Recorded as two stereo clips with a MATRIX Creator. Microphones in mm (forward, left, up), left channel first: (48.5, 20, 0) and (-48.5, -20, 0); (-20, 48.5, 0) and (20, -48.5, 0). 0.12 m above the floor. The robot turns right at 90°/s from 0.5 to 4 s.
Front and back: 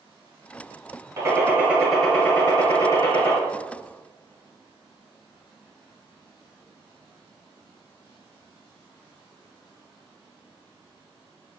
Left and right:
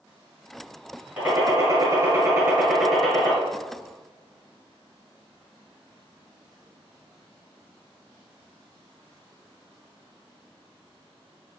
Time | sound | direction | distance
1.2 | a gunshot | 135° right | 1.5 m